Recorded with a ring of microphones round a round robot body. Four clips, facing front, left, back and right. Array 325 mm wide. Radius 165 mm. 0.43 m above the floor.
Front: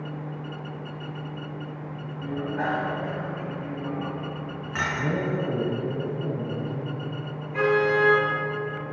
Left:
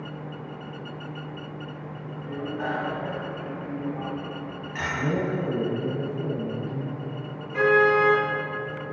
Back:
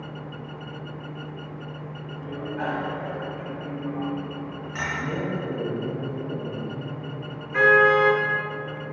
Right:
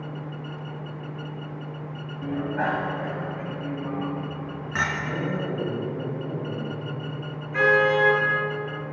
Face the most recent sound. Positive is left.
turn(degrees=-155)